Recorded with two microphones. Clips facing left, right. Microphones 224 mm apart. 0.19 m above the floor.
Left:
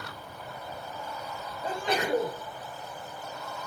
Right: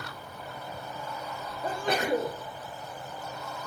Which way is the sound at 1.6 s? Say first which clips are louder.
Right 1 dB; 50° right (ahead or behind).